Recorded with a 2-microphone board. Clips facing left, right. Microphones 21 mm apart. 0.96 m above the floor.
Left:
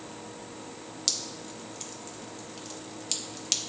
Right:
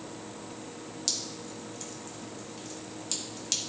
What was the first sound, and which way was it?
Dripping, 20° left (ahead or behind).